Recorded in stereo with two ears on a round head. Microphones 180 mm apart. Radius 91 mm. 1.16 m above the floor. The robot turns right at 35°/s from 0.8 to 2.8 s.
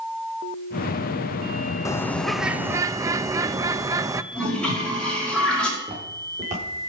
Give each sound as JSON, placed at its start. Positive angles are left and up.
{"t": 1.9, "sound": "a bird", "azimuth_deg": 165, "distance_m": 0.6}
{"t": 4.3, "sound": "a toilet flushing", "side_deg": 5, "distance_m": 5.0}
{"t": 5.8, "sound": "footsteps", "side_deg": -30, "distance_m": 7.0}